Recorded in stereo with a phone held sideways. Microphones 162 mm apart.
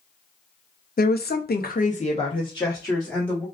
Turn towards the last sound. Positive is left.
turn(degrees=15)  # may be behind; listen again after turning